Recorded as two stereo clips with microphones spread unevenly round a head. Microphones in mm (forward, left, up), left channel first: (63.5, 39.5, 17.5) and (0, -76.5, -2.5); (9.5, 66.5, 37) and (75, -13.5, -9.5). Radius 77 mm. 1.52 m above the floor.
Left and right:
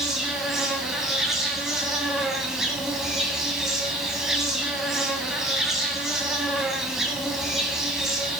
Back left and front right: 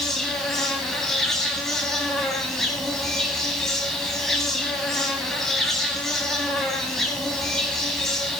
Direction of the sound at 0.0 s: 140° left.